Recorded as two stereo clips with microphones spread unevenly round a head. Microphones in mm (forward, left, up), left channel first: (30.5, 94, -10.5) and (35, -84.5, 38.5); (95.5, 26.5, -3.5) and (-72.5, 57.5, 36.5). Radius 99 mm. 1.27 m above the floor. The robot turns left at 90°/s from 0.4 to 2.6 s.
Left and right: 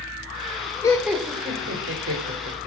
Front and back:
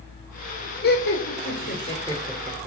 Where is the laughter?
20° left, 4 m; by 2.7 s 140° right, 4 m.